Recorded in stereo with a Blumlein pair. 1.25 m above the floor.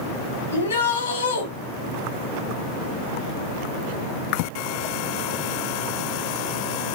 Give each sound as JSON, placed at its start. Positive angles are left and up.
{"t": 0.5, "sound": "a shout", "azimuth_deg": 70, "distance_m": 3.0}